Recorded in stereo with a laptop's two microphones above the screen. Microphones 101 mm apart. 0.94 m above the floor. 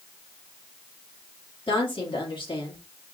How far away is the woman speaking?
About 1.7 m.